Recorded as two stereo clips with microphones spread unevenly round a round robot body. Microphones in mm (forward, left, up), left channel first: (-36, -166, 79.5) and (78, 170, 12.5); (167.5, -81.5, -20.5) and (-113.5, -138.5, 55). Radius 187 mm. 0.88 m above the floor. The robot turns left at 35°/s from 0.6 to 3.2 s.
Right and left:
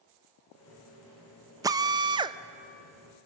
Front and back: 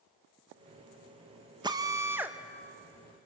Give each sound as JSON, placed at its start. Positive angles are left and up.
{"t": 1.6, "sound": "a drill", "azimuth_deg": 100, "distance_m": 0.6}